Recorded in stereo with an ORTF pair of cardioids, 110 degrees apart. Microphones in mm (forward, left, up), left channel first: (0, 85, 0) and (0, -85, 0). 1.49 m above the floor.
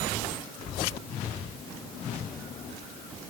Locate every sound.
Only background noise.